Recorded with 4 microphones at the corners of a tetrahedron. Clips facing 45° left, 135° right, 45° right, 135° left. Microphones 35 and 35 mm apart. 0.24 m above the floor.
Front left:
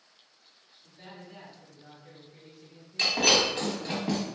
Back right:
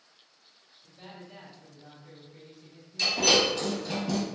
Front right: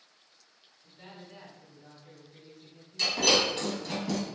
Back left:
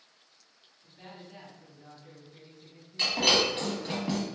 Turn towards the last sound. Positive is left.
turn(degrees=80)